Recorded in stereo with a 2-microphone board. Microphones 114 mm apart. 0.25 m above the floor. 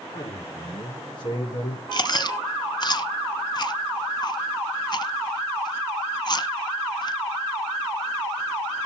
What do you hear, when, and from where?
0.1 s a man speaking: 35° left (ahead or behind), 5.5 m; by 1.8 s 50° left (ahead or behind), 5 m
1.9 s chewing: 40° left (ahead or behind), 1.1 m